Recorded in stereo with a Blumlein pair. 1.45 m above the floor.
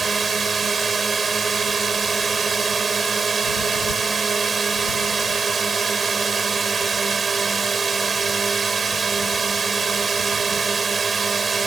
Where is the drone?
15° right.